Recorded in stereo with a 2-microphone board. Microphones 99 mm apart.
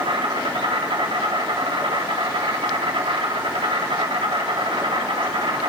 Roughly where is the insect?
Right.